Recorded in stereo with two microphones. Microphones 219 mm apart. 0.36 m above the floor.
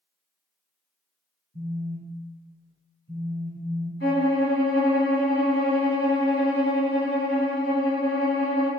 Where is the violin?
65° left (ahead or behind), 1.9 m.